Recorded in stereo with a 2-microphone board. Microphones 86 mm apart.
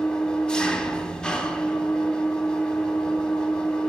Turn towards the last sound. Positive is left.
turn(degrees=10)  # may be behind; listen again after turning